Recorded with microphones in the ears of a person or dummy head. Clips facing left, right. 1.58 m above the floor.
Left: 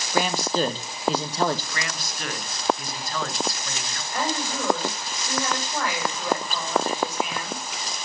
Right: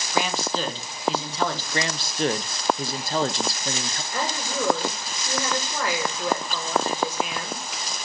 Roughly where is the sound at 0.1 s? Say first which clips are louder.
Left 2 dB; left.